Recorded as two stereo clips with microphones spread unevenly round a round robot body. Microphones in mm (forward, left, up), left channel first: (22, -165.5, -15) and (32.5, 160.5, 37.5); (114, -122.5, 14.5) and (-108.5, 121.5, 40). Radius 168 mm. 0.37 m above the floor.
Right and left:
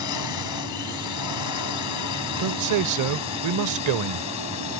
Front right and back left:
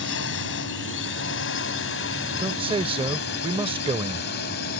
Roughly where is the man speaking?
Ahead left.